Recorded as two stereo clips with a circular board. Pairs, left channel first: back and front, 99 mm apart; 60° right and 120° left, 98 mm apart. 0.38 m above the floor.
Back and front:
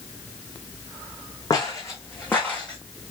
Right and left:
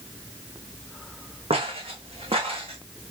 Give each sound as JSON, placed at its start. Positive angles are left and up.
{"t": 1.5, "sound": "footsteps", "azimuth_deg": 130, "distance_m": 1.8}